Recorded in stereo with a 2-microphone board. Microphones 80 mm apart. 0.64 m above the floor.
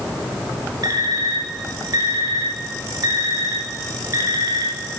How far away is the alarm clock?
About 2.5 m.